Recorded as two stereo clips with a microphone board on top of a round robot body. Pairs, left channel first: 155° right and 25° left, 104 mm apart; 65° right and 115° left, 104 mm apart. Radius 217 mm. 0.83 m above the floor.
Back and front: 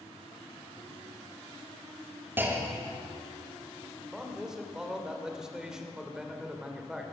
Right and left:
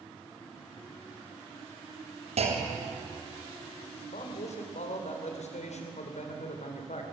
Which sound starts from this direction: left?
A clunk, at 2.4 s.